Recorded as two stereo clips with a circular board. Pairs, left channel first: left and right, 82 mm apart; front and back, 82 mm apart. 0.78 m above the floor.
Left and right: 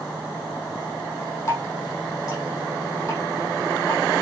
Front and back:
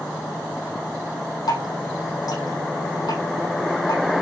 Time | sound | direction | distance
1.5 | dripping | 35° left | 5 m